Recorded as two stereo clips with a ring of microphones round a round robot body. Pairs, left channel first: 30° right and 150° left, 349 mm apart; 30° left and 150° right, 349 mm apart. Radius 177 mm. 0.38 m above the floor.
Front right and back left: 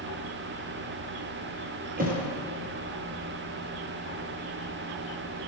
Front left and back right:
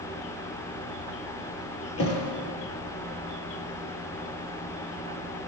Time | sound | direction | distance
2.0 | a thud | 85° left | 2 m